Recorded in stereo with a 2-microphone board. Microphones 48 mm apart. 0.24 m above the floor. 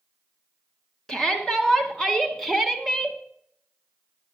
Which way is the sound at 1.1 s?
10° left (ahead or behind).